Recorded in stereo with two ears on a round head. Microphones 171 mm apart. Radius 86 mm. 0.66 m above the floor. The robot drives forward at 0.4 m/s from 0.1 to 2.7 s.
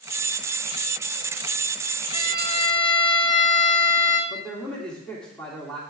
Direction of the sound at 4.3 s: 5° left (ahead or behind).